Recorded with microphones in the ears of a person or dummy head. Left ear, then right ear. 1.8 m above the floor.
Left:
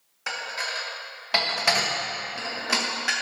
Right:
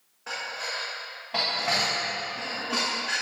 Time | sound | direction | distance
0.3 | dishes clattering | 45° left (ahead or behind) | 1.3 m